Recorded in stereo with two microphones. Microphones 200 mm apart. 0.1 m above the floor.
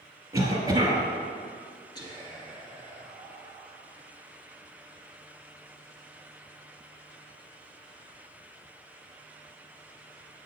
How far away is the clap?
No clap in this recording.